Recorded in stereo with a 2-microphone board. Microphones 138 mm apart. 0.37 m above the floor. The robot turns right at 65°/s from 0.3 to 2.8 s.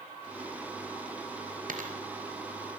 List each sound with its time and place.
1.7 s a dropped coin: 85° right, 3.5 m; by 1.9 s 70° right (ahead or behind), 3.5 m